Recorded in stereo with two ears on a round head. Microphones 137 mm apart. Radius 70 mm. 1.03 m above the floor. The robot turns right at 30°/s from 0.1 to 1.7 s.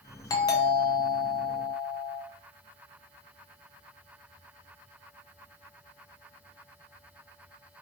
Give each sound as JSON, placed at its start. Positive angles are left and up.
{"t": 0.3, "sound": "a doorbell", "azimuth_deg": 50, "distance_m": 0.5}